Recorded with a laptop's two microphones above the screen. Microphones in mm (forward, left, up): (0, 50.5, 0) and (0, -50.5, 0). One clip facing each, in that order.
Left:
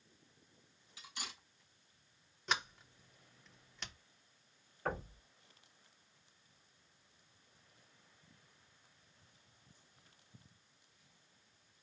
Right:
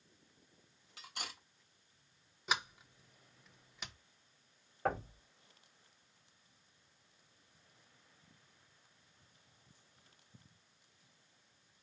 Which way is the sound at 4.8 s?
75° right (ahead or behind).